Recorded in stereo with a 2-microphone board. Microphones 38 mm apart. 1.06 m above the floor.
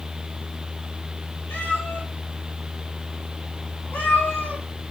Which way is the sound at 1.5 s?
80° left.